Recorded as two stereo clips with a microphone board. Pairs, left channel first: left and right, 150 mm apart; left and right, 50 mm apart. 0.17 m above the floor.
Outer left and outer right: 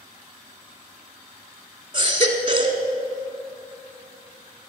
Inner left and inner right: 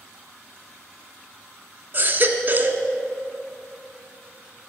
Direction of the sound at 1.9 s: 35° right (ahead or behind).